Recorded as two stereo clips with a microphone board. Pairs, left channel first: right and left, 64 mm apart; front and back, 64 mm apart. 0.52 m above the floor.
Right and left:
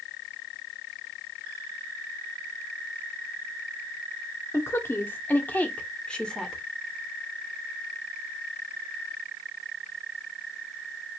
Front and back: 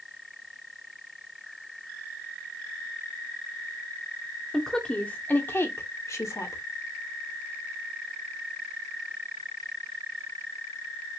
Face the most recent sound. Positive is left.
turn(degrees=-10)